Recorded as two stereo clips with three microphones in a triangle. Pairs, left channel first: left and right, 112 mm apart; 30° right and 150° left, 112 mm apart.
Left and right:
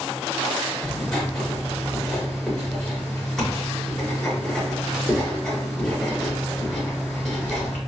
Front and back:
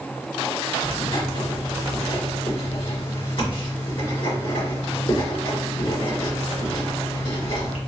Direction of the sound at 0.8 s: 5° left.